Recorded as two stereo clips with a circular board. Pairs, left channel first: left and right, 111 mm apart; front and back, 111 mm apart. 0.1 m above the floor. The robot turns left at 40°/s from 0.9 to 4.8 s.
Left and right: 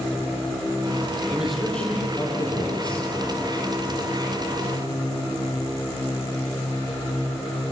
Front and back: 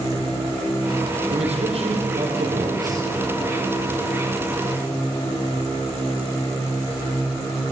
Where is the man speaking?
170° right, 4.5 m; by 3.1 s 120° left, 4.5 m.